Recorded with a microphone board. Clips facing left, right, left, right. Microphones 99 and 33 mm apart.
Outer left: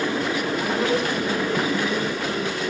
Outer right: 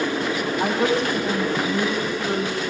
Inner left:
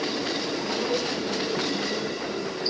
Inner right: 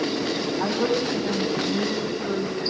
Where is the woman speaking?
30° right (ahead or behind), 9.5 m.